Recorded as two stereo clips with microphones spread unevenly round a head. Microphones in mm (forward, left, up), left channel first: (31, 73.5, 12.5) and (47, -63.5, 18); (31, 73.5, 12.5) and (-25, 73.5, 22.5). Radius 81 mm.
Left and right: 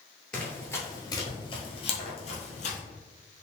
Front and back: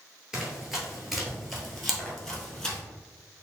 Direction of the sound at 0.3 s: Straight behind.